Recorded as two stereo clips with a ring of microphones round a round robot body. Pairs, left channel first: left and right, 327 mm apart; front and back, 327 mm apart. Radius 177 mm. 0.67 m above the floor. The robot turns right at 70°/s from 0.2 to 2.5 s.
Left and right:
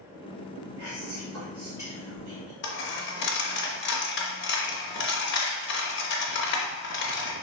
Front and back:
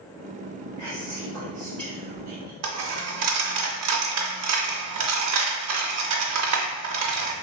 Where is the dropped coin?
145° left, 0.5 m.